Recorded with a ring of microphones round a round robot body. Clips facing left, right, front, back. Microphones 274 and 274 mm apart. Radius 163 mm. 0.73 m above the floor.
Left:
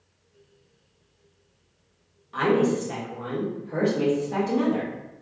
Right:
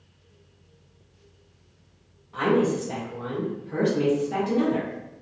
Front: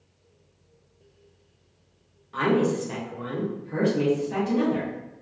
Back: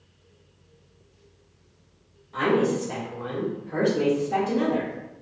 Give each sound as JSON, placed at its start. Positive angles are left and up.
{"t": 2.3, "sound": "a woman speaking", "azimuth_deg": 60, "distance_m": 0.9}